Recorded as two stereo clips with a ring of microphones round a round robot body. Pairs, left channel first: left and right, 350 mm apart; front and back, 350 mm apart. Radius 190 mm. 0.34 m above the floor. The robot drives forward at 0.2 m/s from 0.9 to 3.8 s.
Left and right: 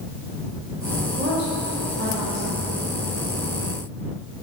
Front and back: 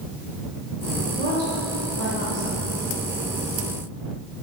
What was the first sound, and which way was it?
A woman speaking, 130° right.